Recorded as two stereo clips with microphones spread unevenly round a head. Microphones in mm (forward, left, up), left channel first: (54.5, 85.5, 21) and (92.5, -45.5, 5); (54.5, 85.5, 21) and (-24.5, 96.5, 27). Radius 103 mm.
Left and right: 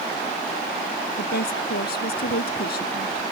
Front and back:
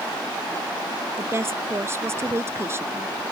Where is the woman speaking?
115° left.